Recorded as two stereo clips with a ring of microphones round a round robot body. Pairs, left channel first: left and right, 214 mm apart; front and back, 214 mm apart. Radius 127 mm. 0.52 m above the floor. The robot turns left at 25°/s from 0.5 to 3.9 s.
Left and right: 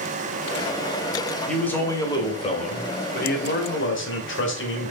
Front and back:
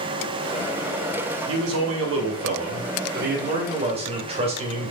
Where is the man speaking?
175° left, 2.5 m; by 4.9 s 115° left, 2.5 m.